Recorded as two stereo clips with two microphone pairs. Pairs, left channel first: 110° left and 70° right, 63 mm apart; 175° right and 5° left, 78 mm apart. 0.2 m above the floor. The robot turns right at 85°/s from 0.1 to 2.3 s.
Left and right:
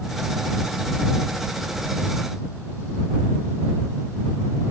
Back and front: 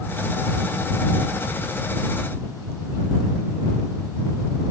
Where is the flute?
No flute in this recording.